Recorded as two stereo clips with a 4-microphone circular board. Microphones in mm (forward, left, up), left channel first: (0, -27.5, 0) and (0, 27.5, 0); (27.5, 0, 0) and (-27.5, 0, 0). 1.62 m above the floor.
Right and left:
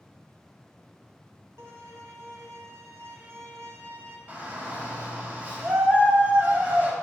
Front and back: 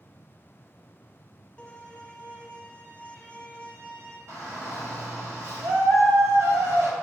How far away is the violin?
About 1.5 m.